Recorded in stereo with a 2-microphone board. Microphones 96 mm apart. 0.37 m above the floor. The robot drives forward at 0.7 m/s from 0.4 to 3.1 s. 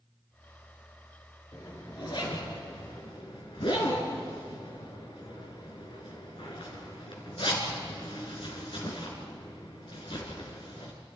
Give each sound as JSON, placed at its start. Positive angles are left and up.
{"t": 1.5, "sound": "a zipper", "side_deg": 50, "distance_m": 4.0}